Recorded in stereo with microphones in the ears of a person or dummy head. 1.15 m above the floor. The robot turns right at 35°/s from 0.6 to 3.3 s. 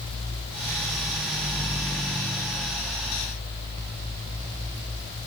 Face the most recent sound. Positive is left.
No sound to turn to.